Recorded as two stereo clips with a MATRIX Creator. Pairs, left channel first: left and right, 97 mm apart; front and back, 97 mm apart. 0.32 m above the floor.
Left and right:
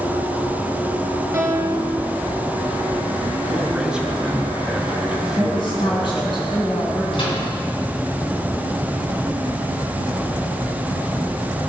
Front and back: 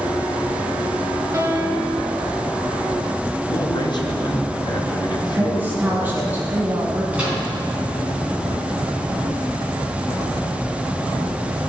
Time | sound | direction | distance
1.3 | a piano | 140° right | 1.3 m
3.4 | a man speaking | 10° right | 1.7 m
5.3 | a woman speaking | 110° left | 2.5 m
7.1 | a microwave | 105° left | 3 m